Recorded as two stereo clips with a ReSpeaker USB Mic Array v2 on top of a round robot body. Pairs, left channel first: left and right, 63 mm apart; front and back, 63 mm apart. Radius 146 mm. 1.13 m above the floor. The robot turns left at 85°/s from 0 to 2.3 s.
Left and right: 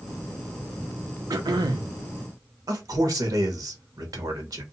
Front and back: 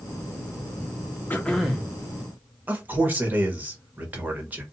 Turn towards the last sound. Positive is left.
turn(degrees=-115)